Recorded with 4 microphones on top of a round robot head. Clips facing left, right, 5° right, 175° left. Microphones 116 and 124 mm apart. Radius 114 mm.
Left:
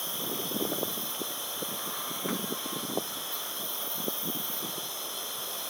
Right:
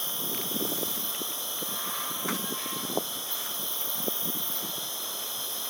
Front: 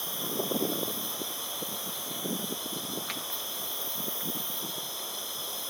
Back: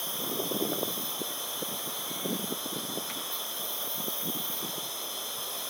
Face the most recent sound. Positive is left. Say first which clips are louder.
# left 1 dB, front 1 dB
turn(degrees=-90)